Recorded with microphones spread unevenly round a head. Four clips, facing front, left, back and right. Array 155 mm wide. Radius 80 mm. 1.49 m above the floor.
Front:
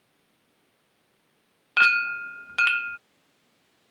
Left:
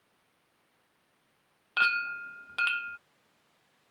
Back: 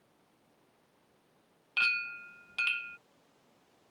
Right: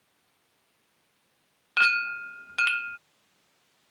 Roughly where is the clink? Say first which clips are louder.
Right 3 dB, front 14 dB; ahead.